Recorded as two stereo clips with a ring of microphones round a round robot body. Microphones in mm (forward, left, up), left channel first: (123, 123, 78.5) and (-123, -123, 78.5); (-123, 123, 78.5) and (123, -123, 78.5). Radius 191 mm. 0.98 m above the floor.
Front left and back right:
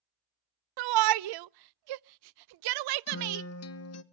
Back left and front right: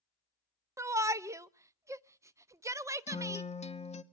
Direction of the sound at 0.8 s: 125° right.